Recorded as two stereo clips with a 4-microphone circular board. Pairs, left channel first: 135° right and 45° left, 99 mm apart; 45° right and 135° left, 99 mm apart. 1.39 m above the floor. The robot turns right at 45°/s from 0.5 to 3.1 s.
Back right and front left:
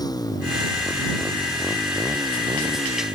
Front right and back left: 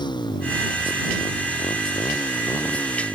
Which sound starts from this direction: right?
A motorcycle, at 0.0 s.